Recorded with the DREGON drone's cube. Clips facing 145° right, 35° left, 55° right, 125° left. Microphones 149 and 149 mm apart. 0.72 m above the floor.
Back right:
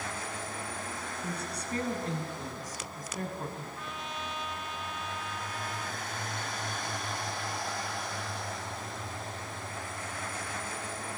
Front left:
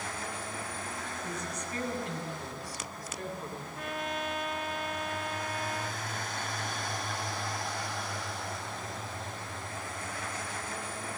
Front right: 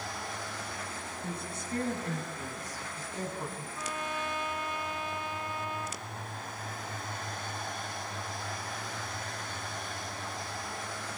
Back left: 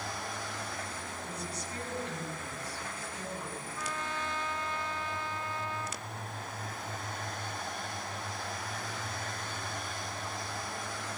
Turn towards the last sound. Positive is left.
turn(degrees=15)